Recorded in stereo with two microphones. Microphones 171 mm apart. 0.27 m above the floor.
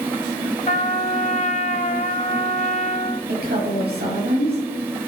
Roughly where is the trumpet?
Left.